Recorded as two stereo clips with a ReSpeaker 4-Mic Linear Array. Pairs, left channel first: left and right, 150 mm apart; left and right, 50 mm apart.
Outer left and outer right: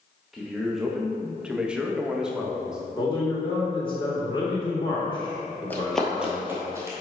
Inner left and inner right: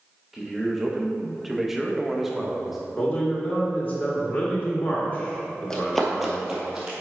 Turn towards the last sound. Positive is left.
turn(degrees=-20)  # may be behind; listen again after turning